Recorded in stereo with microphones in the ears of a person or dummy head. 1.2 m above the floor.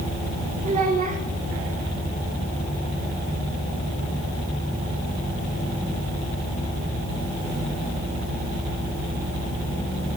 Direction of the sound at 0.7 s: 45° right (ahead or behind).